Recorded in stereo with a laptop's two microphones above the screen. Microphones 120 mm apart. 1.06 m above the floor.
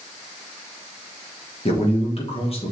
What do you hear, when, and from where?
1.6 s a man speaking: 50° left (ahead or behind), 1.0 m